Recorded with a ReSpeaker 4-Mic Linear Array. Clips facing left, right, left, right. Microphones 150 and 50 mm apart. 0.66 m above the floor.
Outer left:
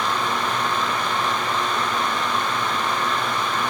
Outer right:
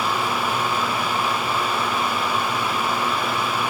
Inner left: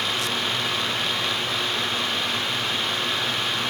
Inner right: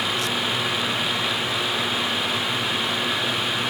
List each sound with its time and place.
Only background noise.